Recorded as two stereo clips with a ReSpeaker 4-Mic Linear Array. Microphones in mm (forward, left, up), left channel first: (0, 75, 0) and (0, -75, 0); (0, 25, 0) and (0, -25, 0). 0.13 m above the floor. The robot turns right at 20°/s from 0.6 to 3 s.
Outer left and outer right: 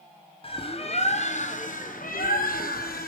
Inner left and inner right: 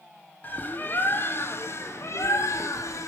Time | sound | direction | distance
0.4 | a bird | 40° left | 0.8 m